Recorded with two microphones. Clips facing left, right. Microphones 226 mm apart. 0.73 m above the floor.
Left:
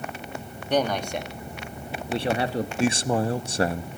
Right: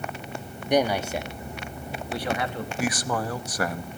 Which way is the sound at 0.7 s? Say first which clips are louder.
Right 2 dB; 15° right (ahead or behind).